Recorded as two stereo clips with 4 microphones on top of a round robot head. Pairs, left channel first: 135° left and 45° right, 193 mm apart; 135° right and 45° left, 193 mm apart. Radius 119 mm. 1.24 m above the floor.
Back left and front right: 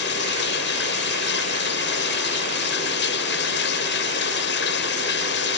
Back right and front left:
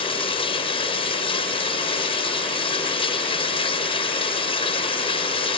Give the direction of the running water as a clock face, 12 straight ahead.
7 o'clock.